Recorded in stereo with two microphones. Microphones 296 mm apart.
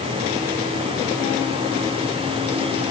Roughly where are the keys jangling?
I don't hear keys jangling.